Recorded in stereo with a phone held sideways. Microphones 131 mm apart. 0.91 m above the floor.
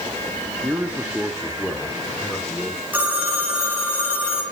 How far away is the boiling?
No boiling in this recording.